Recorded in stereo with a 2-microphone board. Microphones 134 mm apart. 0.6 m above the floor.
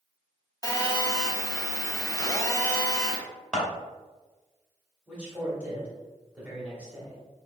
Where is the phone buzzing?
25° left (ahead or behind), 0.5 m.